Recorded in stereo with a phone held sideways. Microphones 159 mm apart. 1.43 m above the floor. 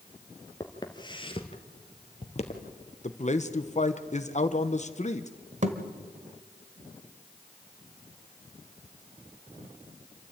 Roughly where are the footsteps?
Left.